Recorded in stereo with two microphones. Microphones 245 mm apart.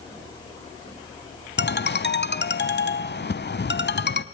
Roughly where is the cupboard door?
No cupboard door in this recording.